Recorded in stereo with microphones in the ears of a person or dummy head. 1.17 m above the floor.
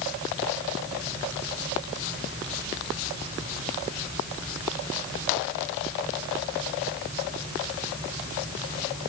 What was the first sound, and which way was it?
Only background noise.